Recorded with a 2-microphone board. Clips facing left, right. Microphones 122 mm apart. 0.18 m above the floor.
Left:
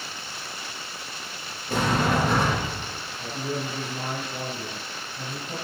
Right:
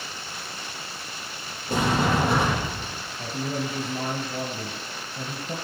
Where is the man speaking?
45° right (ahead or behind), 2 m.